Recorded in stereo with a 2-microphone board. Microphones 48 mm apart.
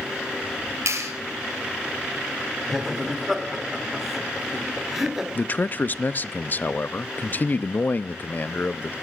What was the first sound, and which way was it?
A clap, 75° right (ahead or behind).